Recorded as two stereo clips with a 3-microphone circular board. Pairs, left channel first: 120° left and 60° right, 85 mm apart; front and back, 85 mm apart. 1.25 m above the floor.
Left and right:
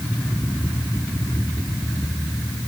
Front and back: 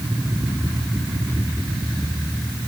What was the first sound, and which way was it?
Only background noise.